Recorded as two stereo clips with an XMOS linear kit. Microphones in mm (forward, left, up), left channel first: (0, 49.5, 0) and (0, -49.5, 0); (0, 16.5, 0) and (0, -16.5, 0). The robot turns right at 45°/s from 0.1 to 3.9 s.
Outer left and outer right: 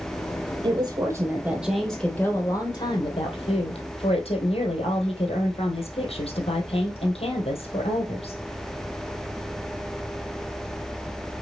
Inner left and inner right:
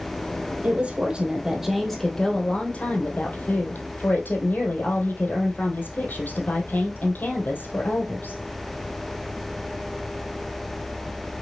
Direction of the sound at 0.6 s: 50° right.